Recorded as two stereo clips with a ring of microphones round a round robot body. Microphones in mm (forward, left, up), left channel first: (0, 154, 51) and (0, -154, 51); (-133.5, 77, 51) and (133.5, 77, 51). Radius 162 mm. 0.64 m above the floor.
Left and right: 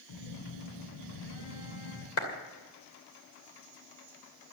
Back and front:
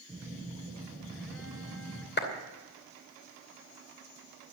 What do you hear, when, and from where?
0.1 s a phone buzzing: 90° left, 3 m
2.2 s a clap: 130° left, 2.5 m